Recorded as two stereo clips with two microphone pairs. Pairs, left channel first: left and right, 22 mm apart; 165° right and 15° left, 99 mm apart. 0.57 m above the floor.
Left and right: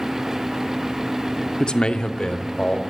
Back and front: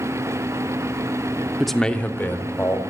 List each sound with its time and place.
1.6 s a man speaking: 100° left, 0.8 m; by 2.8 s 135° left, 2 m